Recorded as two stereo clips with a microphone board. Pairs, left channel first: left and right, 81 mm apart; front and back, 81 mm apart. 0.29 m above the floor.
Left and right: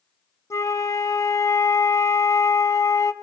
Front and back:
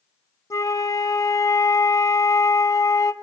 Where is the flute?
45° left, 0.7 m.